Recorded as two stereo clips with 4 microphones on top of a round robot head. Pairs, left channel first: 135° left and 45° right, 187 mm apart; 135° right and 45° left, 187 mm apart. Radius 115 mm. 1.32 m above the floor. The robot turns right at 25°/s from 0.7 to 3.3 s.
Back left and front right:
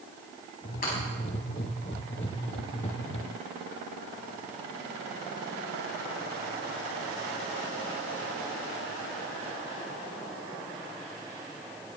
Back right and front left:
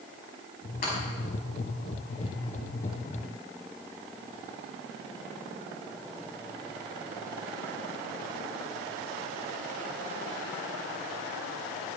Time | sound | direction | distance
0.8 | breaking glass | straight behind | 6 m